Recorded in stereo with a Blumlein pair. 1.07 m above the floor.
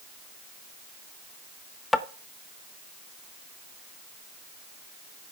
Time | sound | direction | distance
1.9 | tapping | 10° left | 0.8 m